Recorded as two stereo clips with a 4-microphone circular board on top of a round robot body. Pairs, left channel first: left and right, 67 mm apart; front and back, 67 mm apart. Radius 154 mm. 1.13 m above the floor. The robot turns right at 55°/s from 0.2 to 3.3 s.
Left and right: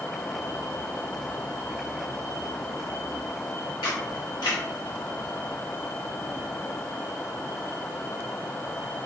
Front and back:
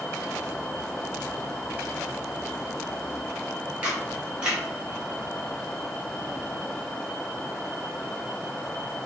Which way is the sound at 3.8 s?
105° left.